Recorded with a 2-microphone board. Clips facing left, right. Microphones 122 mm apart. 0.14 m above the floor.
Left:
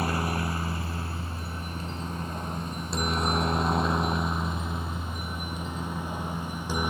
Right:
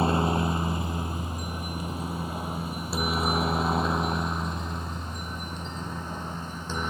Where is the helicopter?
25° right (ahead or behind); by 6.9 s 15° left (ahead or behind).